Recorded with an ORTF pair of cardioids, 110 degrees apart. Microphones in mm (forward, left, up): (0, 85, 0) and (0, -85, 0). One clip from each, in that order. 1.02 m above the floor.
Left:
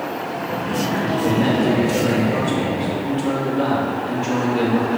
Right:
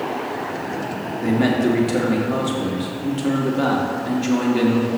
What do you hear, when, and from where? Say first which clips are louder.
1.2 s a man speaking: right 1 dB; 65° right, 2.0 m